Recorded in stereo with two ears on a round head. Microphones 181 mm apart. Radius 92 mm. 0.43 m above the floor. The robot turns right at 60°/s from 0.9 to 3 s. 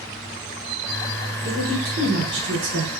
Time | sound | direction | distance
1.4 | a woman speaking | 145° right | 5 m